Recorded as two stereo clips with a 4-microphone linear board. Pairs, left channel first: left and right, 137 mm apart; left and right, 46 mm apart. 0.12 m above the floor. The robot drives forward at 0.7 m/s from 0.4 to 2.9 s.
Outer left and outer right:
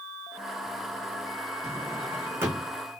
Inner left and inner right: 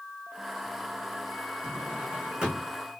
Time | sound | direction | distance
1.6 | a drawer | 20° right (ahead or behind) | 4 m